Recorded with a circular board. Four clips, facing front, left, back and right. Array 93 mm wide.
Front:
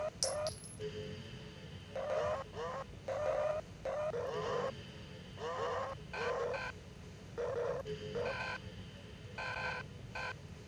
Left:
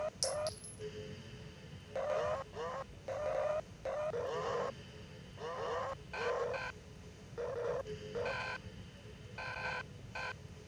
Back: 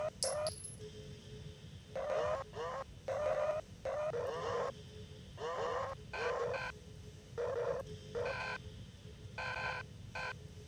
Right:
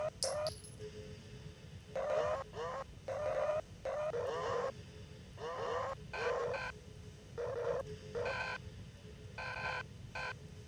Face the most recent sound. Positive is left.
turn(degrees=25)